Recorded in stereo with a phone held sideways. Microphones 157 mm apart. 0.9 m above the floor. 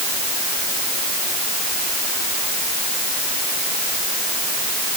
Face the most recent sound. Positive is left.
No sound to turn to.